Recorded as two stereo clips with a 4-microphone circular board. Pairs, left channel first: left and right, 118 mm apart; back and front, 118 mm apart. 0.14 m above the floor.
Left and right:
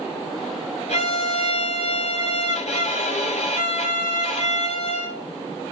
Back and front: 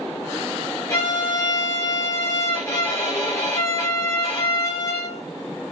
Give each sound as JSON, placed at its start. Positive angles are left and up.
{"t": 0.9, "sound": "a violin", "azimuth_deg": 115, "distance_m": 6.0}